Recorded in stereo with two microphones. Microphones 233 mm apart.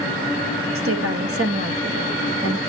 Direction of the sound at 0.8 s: 70° right (ahead or behind).